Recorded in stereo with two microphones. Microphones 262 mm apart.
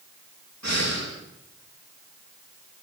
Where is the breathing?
90° right, 9 m.